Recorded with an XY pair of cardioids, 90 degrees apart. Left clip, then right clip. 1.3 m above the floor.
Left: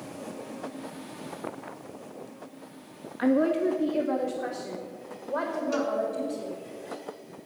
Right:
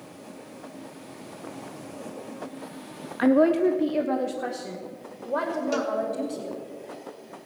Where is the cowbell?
50° right, 1.9 m.